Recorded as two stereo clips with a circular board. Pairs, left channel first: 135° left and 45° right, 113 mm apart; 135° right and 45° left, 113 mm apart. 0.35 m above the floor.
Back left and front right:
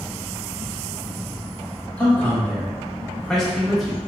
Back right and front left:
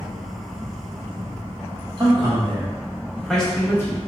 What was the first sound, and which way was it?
A man speaking, 70° left.